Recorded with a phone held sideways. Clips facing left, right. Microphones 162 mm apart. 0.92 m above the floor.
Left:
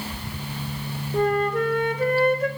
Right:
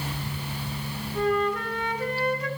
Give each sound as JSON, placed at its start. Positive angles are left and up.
{"t": 1.1, "sound": "a flute", "side_deg": 50, "distance_m": 1.3}